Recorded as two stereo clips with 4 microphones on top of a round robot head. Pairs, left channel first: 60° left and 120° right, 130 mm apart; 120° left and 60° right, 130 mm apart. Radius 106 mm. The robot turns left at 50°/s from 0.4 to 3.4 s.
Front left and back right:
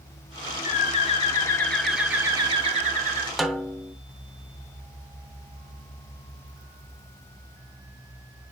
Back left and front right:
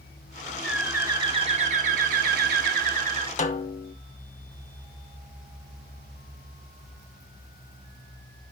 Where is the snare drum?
150° left, 0.7 m.